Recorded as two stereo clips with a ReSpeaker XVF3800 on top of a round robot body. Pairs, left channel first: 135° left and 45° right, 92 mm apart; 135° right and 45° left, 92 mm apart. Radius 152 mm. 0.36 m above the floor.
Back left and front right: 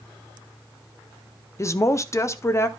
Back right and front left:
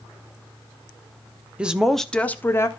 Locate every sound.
1.6 s a woman speaking: 115° left, 1.3 m; by 2.7 s straight behind, 1.5 m